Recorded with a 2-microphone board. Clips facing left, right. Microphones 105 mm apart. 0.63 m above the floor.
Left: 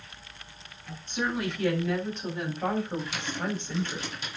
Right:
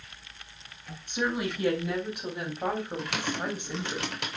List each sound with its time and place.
1.1 s a woman speaking: 15° right (ahead or behind), 4.5 m
3.0 s typing on a keyboard: 70° right (ahead or behind), 2.5 m